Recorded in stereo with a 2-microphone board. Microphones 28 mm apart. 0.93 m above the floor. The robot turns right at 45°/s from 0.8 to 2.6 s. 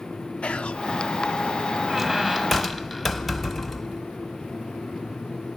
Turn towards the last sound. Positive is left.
turn(degrees=-5)  # may be behind; listen again after turning